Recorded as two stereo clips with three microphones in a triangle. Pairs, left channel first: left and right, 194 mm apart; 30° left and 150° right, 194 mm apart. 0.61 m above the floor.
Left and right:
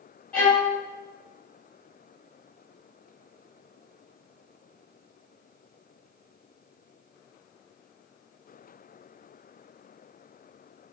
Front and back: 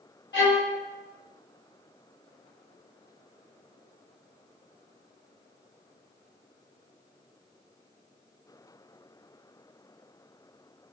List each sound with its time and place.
0.3 s a violin: 5° left, 0.8 m